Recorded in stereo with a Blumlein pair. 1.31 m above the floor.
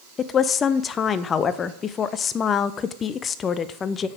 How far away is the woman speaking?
About 0.5 m.